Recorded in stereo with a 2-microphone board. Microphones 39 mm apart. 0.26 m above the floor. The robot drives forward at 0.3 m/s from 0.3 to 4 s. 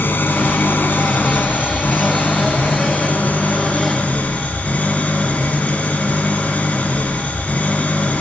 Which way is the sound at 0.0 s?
65° left (ahead or behind).